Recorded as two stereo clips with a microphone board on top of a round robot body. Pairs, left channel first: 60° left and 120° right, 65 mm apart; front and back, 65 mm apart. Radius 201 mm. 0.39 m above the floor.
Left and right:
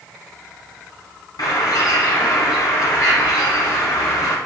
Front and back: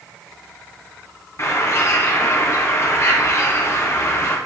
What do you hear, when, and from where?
1.4 s a bird: 45° left, 2.5 m